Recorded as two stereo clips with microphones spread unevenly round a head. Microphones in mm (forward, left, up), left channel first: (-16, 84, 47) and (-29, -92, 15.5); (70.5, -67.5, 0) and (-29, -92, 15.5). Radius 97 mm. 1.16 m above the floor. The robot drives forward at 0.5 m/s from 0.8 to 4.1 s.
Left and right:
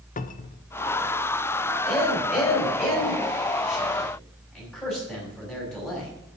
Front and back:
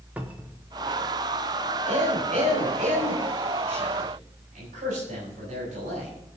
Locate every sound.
0.2 s a cupboard door: 110° left, 0.8 m
1.9 s a man speaking: 160° left, 5 m; by 6.1 s 165° left, 6 m